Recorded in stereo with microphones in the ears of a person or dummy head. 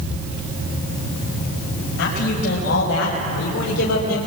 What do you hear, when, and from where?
2.0 s a man speaking: 60° left (ahead or behind), 5.5 m; by 4.2 s 55° left (ahead or behind), 3 m